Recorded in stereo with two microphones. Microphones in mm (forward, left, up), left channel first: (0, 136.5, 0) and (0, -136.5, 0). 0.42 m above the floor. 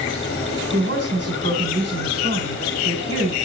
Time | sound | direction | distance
0.7 | a woman speaking | 45° right (ahead or behind) | 2.5 m